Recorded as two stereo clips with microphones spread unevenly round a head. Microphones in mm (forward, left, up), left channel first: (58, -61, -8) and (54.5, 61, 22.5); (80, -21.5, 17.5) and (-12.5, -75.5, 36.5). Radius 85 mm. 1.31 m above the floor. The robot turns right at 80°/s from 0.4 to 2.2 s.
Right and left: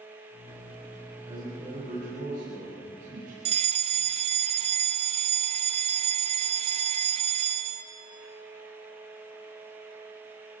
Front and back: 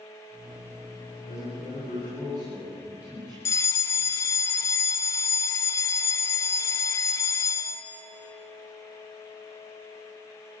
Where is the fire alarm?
65° left, 1.0 m.